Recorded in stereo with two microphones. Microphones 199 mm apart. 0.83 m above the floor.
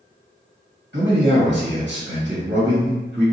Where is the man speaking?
60° right (ahead or behind), 1.6 m.